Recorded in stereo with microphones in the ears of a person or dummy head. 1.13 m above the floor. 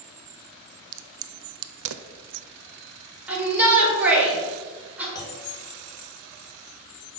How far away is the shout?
About 3.5 m.